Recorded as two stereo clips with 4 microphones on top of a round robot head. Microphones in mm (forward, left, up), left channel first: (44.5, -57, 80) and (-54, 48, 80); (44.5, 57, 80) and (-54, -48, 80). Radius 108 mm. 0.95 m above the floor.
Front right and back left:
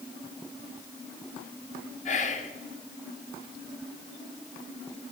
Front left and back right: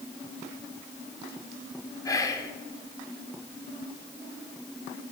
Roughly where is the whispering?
Ahead.